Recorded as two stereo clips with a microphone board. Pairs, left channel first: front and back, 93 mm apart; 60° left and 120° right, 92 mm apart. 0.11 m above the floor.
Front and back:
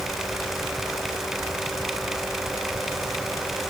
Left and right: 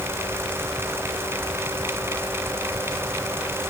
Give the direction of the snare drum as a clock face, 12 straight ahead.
I don't hear a snare drum.